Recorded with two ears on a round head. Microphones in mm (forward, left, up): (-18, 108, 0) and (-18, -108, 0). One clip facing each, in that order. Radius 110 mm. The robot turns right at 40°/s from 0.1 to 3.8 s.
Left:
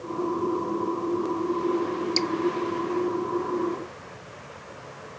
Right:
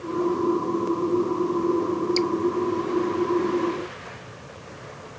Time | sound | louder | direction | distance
2.2 | dripping | right 4 dB | 10° left (ahead or behind) | ?